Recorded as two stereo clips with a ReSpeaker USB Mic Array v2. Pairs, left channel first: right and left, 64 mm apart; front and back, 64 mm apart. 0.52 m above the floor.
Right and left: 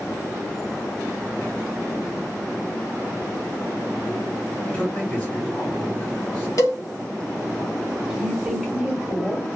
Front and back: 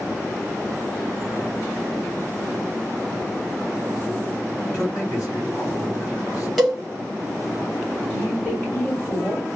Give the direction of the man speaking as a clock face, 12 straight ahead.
1 o'clock.